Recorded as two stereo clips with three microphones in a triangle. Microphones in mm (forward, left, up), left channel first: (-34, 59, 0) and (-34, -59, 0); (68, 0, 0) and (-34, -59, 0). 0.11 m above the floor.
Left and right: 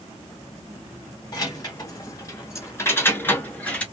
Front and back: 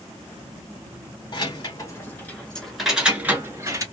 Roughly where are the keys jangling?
Ahead left.